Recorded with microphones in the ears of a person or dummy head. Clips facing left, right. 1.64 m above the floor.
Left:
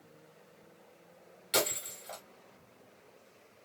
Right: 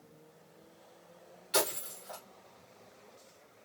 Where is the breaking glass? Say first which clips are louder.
Even; 30° left (ahead or behind), 1.8 m.